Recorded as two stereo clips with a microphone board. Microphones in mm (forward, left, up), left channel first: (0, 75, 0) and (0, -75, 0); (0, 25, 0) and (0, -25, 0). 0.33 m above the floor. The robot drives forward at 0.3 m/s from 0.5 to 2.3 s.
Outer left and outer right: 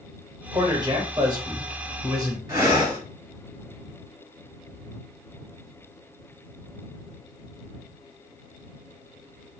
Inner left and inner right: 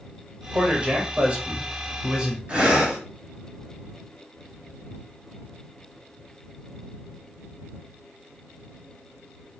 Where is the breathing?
20° right (ahead or behind), 1.6 m.